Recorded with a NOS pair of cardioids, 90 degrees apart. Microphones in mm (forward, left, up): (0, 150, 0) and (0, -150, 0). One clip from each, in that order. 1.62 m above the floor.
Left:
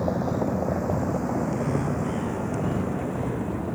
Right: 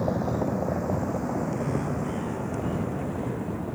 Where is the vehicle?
5° left; by 3.8 s 20° left.